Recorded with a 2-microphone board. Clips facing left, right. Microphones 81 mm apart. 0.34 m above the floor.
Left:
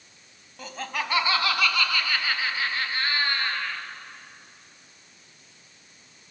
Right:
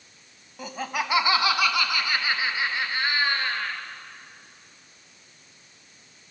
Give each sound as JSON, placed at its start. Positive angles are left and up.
{"t": 0.6, "sound": "laughter", "side_deg": -10, "distance_m": 1.9}